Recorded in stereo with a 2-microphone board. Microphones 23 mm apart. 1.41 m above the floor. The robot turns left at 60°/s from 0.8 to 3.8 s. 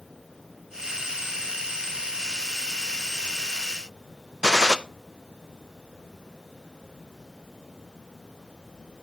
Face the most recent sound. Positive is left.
turn(degrees=-35)  # may be behind; listen again after turning